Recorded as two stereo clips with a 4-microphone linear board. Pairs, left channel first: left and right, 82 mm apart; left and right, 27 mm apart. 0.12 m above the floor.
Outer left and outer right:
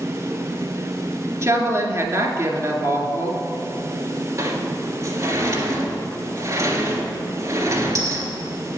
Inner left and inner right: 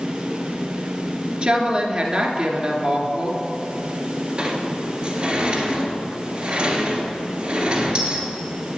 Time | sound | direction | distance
1.4 | a woman speaking | 40° right (ahead or behind) | 1.8 m
4.4 | a sliding door | 40° right (ahead or behind) | 1.8 m